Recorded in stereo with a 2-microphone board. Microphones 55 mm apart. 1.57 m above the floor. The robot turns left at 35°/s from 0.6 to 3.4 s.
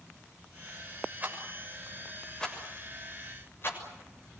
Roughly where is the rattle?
Right.